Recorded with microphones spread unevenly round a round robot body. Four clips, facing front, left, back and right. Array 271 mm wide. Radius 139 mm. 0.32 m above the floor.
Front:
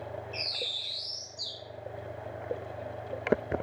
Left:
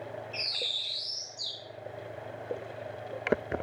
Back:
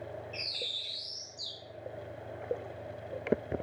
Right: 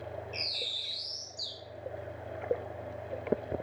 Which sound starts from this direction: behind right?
A bird, at 0.3 s.